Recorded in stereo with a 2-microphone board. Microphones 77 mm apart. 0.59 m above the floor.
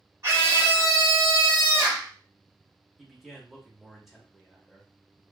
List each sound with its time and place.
0.2 s a scream: 40° right (ahead or behind), 1.6 m
3.0 s a man speaking: centre (ahead or behind), 1.0 m